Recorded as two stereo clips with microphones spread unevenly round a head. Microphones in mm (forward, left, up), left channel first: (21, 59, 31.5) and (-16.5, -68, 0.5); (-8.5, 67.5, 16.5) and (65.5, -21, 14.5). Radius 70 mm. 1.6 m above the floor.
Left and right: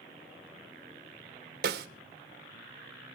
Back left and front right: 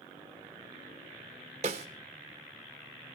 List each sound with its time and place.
1.6 s a snare drum: 90° right, 1.2 m